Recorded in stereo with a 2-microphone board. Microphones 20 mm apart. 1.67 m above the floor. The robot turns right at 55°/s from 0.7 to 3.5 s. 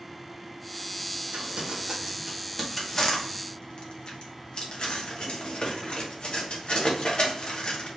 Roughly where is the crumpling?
Right.